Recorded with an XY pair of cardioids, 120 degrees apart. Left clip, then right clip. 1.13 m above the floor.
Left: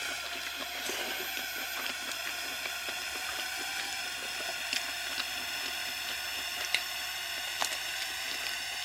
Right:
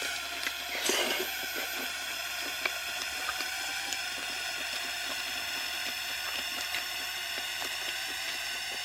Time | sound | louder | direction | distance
0.0 | a drone | right 2 dB | 10° right | ?